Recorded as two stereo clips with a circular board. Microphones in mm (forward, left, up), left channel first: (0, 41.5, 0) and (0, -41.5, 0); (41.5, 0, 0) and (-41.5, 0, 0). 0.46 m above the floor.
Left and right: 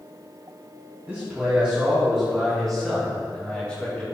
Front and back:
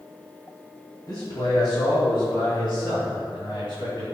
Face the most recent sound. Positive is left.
turn(degrees=15)